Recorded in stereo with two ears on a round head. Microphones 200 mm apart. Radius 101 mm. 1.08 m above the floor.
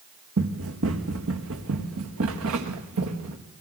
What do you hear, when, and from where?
0.4 s running footsteps: 65° right (ahead or behind), 3 m; by 3.4 s 70° right (ahead or behind), 4.5 m